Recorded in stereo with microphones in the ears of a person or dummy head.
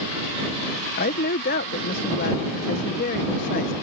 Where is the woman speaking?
50° left (ahead or behind).